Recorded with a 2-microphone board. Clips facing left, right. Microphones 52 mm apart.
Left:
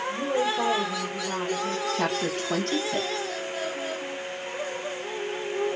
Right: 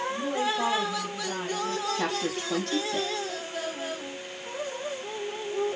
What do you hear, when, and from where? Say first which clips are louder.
0.1 s a woman speaking: left 5 dB; 60° left (ahead or behind), 4.5 m
1.9 s a woman speaking: left 2 dB; 45° left (ahead or behind), 4 m